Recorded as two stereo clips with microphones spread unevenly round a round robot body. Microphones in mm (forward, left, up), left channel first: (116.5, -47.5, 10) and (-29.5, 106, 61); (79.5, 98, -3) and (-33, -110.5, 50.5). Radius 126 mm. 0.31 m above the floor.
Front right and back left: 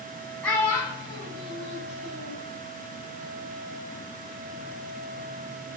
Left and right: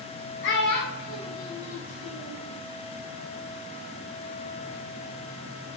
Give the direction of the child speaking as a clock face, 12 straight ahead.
11 o'clock.